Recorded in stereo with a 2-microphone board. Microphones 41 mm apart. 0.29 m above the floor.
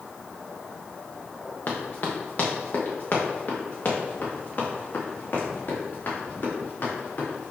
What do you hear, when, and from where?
1.7 s running footsteps: 45° left (ahead or behind), 2.0 m; by 7.5 s 50° left (ahead or behind), 5 m